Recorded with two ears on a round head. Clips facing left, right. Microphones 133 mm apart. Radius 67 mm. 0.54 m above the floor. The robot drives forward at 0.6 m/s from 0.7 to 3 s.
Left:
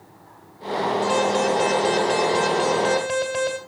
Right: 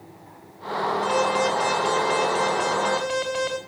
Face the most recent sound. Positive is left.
turn(degrees=45)  # may be behind; listen again after turning